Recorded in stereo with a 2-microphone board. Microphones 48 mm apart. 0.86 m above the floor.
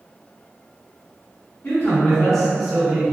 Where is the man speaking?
40° left (ahead or behind), 1.2 m; by 3.0 s 25° right (ahead or behind), 1.2 m.